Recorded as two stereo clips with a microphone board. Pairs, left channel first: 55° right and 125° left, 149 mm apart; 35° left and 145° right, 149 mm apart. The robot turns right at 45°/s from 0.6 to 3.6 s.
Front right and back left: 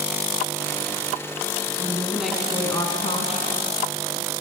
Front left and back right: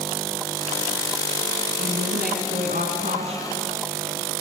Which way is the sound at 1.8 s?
170° right.